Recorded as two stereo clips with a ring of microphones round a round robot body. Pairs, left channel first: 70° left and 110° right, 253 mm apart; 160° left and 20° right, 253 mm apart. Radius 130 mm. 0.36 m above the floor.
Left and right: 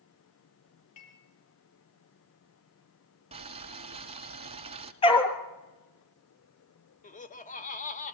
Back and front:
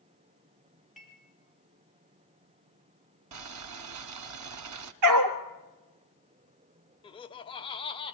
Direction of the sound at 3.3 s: 45° right.